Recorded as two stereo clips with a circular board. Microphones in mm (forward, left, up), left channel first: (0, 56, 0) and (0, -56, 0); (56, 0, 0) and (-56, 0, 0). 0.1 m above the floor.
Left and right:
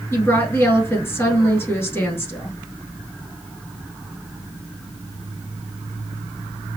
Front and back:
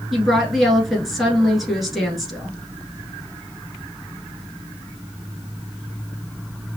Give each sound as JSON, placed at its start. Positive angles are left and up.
{"t": 0.1, "sound": "a woman speaking", "azimuth_deg": 90, "distance_m": 1.1}